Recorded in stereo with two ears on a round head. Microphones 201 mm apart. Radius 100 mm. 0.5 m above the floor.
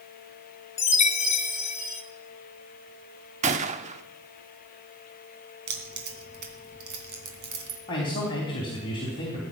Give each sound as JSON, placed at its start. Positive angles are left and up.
{"t": 0.8, "sound": "a chime", "side_deg": 30, "distance_m": 1.6}
{"t": 3.4, "sound": "a gunshot", "side_deg": -30, "distance_m": 0.9}
{"t": 5.7, "sound": "keys jangling", "side_deg": -50, "distance_m": 3.0}
{"t": 7.9, "sound": "a man speaking", "side_deg": 20, "distance_m": 3.5}